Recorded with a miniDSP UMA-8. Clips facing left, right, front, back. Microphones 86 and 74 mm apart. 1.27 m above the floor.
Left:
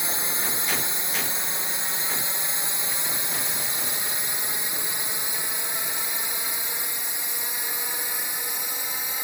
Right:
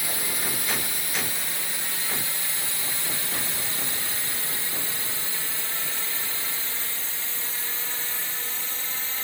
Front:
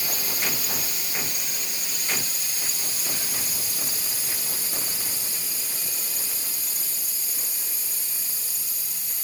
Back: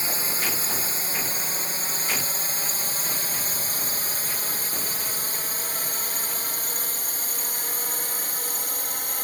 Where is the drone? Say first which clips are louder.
Left 1 dB, back 2 dB; 145° left; by 9.2 s 165° left.